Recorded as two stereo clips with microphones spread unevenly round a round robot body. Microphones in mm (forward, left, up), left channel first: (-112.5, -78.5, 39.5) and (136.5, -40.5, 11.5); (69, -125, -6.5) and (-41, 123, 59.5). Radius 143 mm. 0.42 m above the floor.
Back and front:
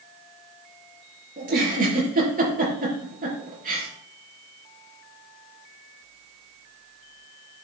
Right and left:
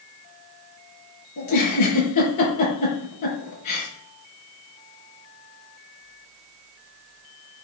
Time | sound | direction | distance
1.4 | a giggle | 50° right | 5.5 m